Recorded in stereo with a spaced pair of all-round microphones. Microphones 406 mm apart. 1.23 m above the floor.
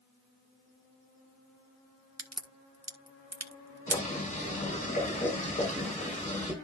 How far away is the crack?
About 1.6 m.